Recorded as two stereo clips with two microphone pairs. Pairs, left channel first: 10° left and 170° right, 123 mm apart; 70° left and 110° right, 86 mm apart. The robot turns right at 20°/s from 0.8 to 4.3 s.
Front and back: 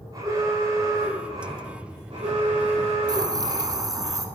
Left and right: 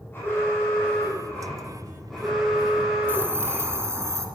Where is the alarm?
130° left, 7.5 m; by 3.9 s 170° right, 7.5 m.